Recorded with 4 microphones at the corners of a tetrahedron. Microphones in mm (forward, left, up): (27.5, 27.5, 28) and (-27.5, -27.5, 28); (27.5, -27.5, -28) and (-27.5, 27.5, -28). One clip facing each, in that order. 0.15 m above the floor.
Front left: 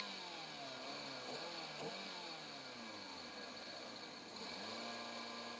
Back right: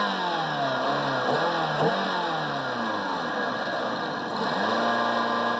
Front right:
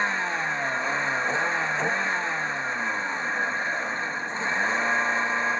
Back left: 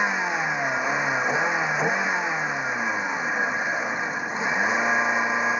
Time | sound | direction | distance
0.0 | a vehicle | 145° right | ?